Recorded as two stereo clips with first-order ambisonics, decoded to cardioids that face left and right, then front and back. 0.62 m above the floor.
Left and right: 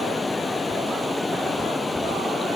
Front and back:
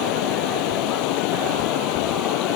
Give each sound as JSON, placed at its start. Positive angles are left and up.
{"t": 0.0, "sound": "running water", "azimuth_deg": 10}